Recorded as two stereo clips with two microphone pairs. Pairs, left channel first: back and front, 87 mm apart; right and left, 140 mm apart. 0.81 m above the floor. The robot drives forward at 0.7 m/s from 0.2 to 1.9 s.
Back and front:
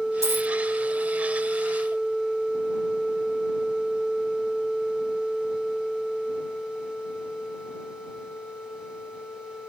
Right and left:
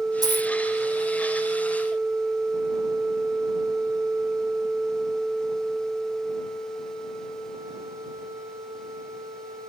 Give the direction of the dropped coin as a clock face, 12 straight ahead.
11 o'clock.